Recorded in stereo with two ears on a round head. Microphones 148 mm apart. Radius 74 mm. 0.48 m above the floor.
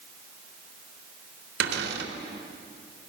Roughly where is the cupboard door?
Right.